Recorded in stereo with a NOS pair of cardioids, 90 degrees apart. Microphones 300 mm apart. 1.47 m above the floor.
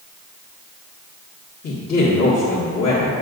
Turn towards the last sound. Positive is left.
turn(degrees=55)